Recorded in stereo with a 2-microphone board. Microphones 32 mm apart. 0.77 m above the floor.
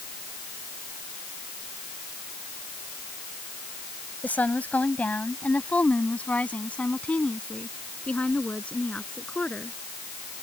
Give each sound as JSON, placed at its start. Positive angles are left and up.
{"t": 4.2, "sound": "a woman speaking", "side_deg": 60}